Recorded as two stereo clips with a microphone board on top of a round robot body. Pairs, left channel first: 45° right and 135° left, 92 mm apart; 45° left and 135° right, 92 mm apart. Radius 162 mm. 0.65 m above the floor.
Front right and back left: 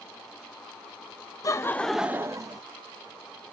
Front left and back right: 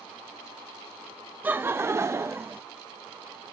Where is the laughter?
70° right, 0.7 m; by 2.6 s 165° left, 0.8 m.